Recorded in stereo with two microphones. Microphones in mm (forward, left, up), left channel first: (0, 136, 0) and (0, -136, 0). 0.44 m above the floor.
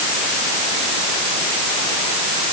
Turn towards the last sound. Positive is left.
No sound to turn to.